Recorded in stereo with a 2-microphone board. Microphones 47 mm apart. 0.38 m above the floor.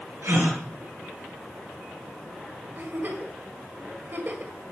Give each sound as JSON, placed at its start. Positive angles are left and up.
{"t": 0.2, "sound": "a gasp", "side_deg": -55, "distance_m": 3.5}
{"t": 2.8, "sound": "a giggle", "side_deg": -45, "distance_m": 1.9}